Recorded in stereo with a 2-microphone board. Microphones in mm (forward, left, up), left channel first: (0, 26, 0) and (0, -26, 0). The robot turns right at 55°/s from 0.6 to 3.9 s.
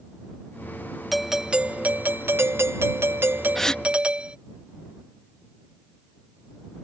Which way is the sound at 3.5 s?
5° left (ahead or behind).